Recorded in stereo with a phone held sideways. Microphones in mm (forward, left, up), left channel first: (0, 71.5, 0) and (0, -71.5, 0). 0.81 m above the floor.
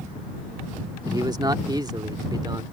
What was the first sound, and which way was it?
A man speaking, 30° right (ahead or behind).